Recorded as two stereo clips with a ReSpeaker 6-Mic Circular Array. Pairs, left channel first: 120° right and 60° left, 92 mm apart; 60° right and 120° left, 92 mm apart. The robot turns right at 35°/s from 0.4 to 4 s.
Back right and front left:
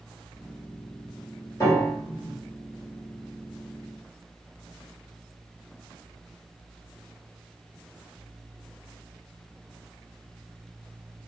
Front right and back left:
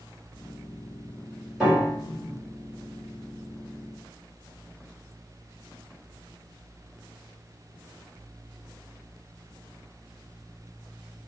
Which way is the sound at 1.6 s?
155° right.